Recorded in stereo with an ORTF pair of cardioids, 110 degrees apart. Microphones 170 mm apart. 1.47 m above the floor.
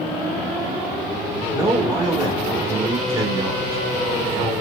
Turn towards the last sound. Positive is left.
turn(degrees=-25)